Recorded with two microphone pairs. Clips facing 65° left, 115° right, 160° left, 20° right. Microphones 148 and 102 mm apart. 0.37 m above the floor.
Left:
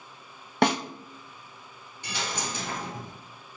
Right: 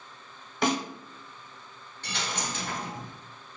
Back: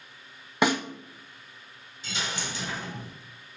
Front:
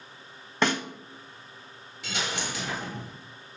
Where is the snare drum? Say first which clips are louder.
Left 3 dB, back 2 dB; 85° left, 0.6 m.